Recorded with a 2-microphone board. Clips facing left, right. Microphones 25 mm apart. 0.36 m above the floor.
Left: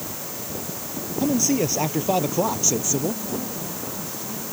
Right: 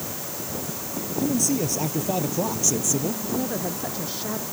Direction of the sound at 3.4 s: 55° right (ahead or behind).